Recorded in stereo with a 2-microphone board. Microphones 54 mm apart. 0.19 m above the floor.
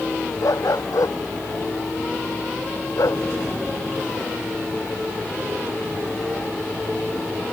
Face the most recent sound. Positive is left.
turn(degrees=85)